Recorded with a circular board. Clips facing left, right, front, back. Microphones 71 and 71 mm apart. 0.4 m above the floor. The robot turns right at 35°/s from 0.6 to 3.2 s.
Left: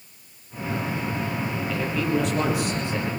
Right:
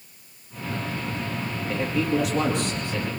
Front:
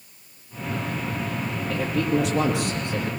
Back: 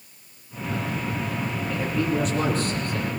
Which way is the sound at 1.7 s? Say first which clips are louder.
Right 2 dB, front 2 dB; 25° right.